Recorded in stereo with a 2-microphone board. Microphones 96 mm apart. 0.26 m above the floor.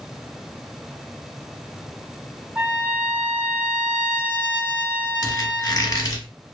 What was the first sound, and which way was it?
A trumpet, 15° right (ahead or behind).